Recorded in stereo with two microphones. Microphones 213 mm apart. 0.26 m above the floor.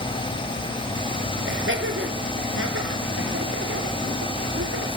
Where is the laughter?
60° right (ahead or behind), 5.5 m; by 4.9 s 80° right, 5 m.